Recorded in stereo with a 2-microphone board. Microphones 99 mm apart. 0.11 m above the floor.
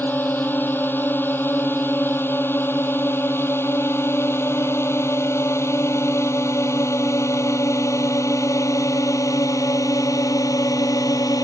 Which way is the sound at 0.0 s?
15° left (ahead or behind).